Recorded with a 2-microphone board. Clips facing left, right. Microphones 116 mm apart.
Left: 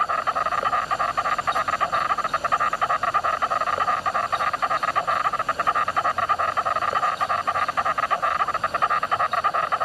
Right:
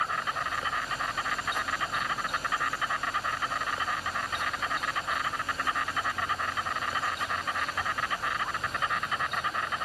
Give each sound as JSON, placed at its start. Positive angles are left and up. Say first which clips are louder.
{"t": 0.0, "sound": "an insect", "louder": "left 8 dB", "side_deg": 70}